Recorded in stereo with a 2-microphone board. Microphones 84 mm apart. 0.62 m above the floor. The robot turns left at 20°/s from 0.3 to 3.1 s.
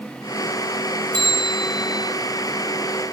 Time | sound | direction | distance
1.1 | a bell | 55° right (ahead or behind) | 2 m